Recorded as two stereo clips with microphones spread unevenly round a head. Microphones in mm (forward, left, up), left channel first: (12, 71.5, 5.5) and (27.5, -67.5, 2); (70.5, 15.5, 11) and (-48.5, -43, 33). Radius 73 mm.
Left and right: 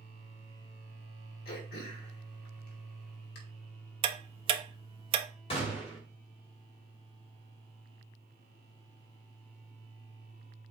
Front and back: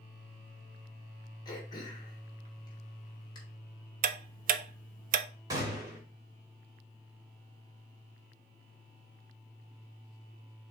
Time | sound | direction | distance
1.4 | throat clearing | 90° left | 2.5 m
4.0 | ticking | 135° right | 0.6 m
5.5 | a gunshot | 145° left | 2 m